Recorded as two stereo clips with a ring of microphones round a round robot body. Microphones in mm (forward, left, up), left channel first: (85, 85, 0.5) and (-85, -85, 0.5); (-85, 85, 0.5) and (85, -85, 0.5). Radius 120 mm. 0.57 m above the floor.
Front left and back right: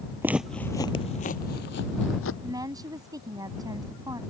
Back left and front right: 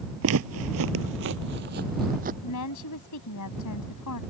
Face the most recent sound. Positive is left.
turn(degrees=150)